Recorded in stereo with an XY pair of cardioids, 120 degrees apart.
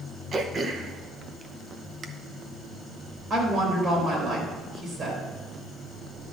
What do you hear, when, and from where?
0.3 s throat clearing: 35° right, 0.8 m
3.3 s a woman speaking: 40° right, 4 m